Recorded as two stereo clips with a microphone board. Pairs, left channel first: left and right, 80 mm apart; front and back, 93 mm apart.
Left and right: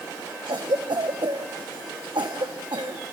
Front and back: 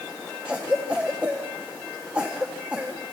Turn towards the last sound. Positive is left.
turn(degrees=-105)